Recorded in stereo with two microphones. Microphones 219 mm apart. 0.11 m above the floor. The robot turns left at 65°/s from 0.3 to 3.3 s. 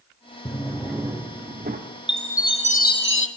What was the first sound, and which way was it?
A drawer, 30° left.